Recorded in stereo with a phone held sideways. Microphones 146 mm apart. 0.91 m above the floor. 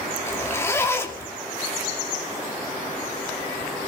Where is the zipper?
20° left (ahead or behind), 2.5 m.